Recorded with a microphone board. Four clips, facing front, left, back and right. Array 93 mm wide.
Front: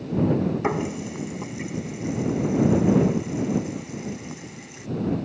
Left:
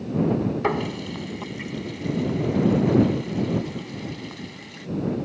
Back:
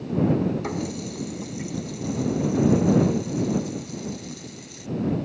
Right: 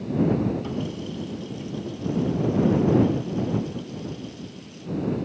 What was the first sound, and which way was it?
A running tap, 60° left.